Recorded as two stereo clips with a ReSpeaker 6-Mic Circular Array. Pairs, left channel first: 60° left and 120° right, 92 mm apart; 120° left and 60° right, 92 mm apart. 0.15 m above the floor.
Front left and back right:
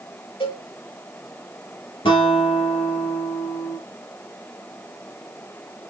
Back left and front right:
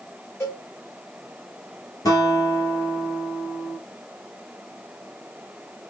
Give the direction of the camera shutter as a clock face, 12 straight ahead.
No camera shutter in this recording.